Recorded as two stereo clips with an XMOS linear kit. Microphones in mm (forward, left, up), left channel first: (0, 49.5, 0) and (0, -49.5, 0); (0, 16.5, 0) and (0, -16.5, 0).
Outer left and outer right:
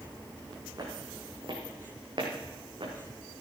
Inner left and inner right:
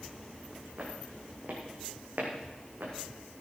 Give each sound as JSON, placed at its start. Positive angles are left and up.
{"t": 0.8, "sound": "footsteps", "side_deg": -45, "distance_m": 3.5}